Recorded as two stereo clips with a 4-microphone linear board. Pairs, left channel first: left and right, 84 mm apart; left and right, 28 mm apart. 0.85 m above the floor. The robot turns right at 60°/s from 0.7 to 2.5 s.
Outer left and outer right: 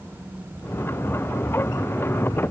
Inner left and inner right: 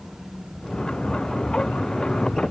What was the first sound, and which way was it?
Only background noise.